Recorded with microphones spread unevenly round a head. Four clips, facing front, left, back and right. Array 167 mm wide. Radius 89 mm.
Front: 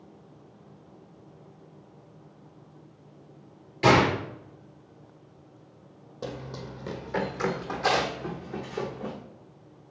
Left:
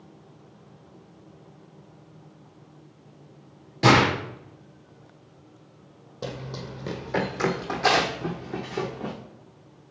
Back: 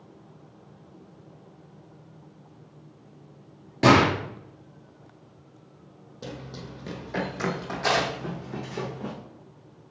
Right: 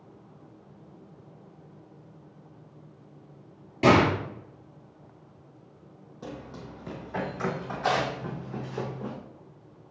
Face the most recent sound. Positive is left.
turn(degrees=115)